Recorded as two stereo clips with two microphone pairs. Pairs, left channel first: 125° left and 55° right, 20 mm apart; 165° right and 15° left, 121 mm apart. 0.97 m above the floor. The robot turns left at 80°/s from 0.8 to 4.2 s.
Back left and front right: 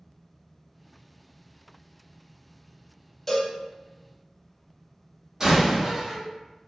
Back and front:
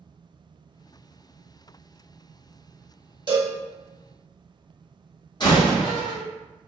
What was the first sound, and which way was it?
A cowbell, 55° left.